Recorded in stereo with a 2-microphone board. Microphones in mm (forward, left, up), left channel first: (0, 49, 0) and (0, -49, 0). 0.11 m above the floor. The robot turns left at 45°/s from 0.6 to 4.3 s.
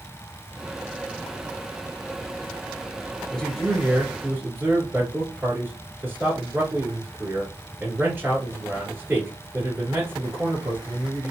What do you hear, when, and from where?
3.3 s a man speaking: 15° left, 1.8 m; by 11.3 s 30° right, 1.8 m